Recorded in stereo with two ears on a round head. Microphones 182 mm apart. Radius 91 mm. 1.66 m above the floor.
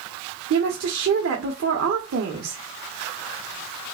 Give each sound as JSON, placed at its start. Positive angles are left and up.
{"t": 0.5, "sound": "a woman speaking", "side_deg": -65, "distance_m": 1.0}